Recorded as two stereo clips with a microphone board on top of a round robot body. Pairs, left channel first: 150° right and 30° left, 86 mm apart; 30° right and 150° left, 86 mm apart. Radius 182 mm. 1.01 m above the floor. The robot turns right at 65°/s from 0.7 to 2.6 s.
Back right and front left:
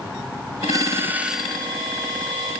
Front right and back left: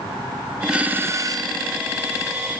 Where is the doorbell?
70° left, 1.2 m; by 1.7 s 135° left, 1.2 m.